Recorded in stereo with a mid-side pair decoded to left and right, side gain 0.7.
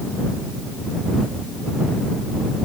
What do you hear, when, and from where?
Only background noise.